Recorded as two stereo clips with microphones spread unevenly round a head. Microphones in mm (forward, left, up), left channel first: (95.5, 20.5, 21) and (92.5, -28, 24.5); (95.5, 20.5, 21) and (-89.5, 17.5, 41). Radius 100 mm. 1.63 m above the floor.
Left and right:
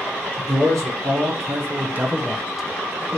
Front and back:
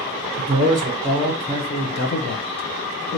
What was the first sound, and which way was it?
A man speaking, 120° right.